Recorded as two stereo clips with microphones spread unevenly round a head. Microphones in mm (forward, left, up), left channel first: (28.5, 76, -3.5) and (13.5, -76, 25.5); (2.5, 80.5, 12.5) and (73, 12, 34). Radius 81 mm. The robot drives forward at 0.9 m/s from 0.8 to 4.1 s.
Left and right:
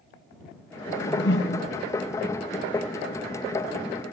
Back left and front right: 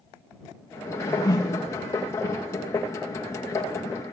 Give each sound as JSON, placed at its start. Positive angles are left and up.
{"t": 0.9, "sound": "a whoosh", "azimuth_deg": 75, "distance_m": 4.5}